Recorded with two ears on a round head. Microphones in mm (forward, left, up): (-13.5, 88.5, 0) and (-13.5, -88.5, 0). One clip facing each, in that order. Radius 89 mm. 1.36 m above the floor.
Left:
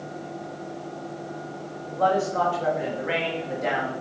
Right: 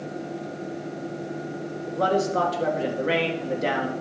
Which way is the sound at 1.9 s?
50° right (ahead or behind).